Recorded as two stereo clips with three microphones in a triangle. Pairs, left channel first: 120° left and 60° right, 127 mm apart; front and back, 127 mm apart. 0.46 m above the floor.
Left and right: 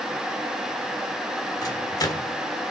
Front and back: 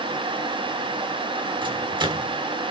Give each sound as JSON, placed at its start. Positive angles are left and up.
{"t": 1.6, "sound": "a microwave", "azimuth_deg": 160, "distance_m": 1.3}